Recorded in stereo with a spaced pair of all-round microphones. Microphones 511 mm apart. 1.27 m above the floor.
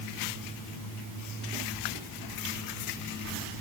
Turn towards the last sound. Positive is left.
No sound to turn to.